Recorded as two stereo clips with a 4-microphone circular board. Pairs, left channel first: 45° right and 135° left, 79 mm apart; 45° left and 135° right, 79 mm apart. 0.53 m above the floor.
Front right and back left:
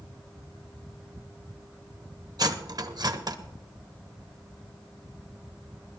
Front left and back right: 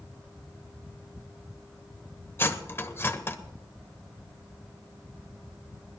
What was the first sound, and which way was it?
Cutlery clinking, 105° left.